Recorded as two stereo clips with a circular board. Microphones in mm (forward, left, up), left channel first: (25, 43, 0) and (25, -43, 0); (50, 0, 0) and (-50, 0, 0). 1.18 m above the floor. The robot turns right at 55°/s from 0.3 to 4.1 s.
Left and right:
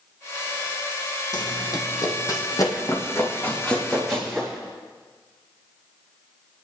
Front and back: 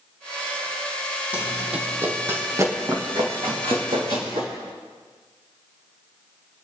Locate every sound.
1.3 s running footsteps: 105° left, 1.9 m; by 4.5 s 175° right, 4 m